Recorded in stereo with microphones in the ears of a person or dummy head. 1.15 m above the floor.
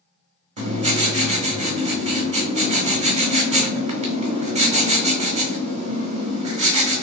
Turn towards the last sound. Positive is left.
turn(degrees=-35)  # may be behind; listen again after turning